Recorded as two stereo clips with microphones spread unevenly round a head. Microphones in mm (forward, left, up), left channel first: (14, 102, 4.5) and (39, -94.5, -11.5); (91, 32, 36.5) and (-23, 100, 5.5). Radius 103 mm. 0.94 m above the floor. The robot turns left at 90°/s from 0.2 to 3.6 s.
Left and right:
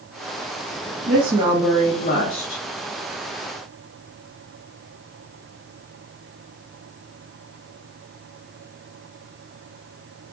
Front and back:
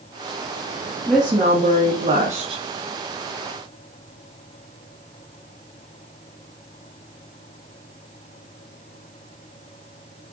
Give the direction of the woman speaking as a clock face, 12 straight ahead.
4 o'clock.